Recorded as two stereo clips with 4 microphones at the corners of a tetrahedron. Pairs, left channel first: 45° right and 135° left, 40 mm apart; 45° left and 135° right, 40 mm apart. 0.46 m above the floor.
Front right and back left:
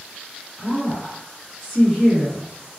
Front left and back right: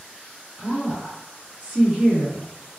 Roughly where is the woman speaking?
Behind right.